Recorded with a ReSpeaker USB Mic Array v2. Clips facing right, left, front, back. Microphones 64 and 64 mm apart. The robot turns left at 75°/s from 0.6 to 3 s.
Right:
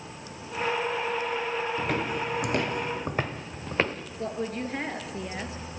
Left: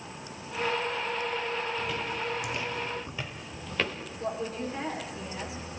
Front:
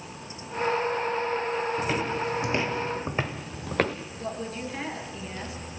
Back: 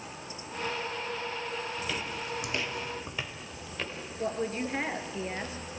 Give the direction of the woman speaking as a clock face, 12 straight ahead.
4 o'clock.